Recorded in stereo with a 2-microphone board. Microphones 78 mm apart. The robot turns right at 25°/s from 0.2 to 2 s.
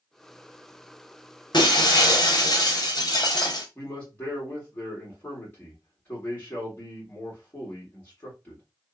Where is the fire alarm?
I don't hear a fire alarm.